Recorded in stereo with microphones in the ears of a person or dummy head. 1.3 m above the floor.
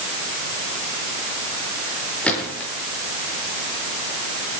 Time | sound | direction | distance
2.2 | a gunshot | 5° left (ahead or behind) | 7 m